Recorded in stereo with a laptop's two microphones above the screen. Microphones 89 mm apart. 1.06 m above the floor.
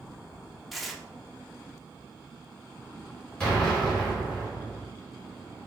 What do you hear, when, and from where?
0.7 s tearing paper: centre (ahead or behind), 0.6 m
3.4 s an explosion: 15° left (ahead or behind), 1.9 m